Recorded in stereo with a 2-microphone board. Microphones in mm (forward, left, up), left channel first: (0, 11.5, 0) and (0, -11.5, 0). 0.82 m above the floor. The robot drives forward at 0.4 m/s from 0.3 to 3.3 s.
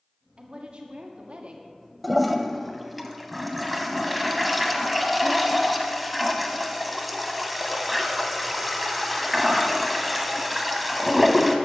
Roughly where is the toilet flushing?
Centre.